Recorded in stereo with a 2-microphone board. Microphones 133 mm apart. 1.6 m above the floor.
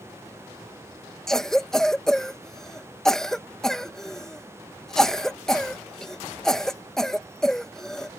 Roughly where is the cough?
Centre.